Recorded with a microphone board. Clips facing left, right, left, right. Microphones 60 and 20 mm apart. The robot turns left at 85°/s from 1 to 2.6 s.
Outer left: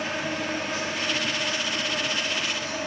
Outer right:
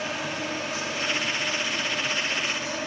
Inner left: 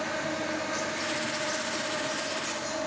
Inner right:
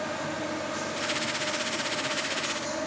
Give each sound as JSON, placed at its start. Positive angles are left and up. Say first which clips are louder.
{"t": 0.0, "sound": "an insect", "louder": "outer left 2 dB, inner left 1 dB", "azimuth_deg": 125, "distance_m": 2.0}